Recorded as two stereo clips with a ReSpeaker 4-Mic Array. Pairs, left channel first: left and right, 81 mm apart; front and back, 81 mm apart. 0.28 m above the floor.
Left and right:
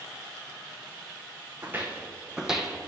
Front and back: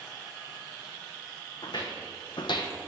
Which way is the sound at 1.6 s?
25° right.